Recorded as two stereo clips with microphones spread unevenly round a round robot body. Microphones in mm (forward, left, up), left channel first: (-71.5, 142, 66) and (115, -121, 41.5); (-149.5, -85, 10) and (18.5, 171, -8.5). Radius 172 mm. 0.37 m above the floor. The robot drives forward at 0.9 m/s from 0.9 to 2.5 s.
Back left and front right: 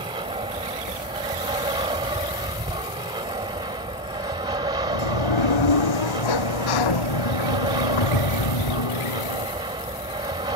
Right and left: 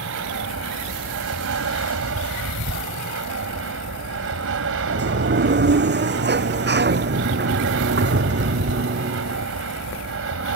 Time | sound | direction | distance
0.0 | an aircraft | 15° left | ?
4.9 | a sliding door | 115° left | ?